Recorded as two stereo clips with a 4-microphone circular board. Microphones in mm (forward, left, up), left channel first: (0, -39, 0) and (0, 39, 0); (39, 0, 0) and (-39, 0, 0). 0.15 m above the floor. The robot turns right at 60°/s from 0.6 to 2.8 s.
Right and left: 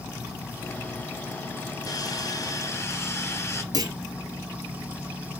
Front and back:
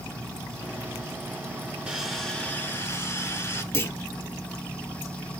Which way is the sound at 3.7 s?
55° left.